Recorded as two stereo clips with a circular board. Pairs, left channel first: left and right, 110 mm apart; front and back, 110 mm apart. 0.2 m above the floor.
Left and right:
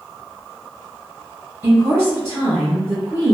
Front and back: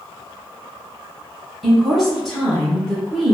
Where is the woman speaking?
90° right, 1.6 m.